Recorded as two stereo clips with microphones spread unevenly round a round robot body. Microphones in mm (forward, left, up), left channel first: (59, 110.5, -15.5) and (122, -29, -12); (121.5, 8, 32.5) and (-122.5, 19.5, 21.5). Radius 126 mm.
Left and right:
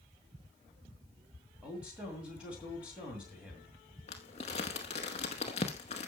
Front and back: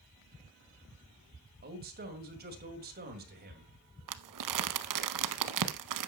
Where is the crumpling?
Straight behind, 0.7 m.